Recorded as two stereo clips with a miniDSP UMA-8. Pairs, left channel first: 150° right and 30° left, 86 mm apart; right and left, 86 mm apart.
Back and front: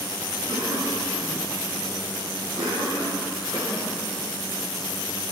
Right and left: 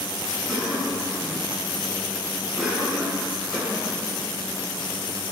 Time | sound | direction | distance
0.5 | a cough | 5° left | 6.5 m